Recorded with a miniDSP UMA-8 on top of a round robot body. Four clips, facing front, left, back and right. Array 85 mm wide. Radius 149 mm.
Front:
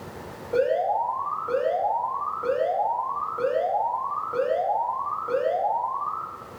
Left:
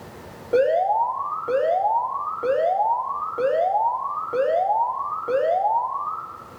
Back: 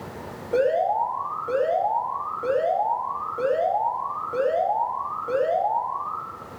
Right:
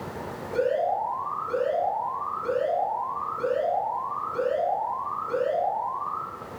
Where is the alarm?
100° left, 4.5 m.